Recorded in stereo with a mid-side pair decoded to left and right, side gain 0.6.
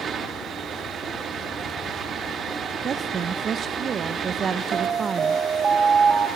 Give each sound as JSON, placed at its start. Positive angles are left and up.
{"t": 0.0, "sound": "a fan", "azimuth_deg": -40, "distance_m": 4.0}
{"t": 2.8, "sound": "a woman speaking", "azimuth_deg": -40, "distance_m": 1.3}
{"t": 4.7, "sound": "an alarm", "azimuth_deg": -35, "distance_m": 3.0}